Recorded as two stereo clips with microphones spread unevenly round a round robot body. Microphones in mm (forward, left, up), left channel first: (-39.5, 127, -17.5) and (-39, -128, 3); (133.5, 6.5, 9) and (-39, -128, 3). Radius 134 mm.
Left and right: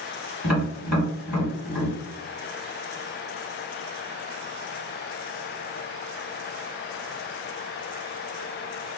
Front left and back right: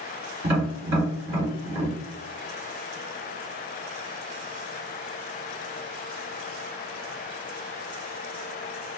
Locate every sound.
0.4 s tapping: straight behind, 1.9 m